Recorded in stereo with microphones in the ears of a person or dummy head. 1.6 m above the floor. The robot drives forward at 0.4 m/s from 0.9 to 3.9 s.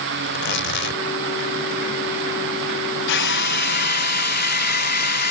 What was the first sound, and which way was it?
Tearing paper, 60° left (ahead or behind).